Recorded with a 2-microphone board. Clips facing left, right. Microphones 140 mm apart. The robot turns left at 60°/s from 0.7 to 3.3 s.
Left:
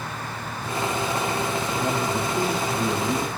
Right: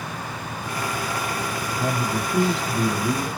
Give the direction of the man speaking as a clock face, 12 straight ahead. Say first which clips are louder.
Right 2 dB; 2 o'clock.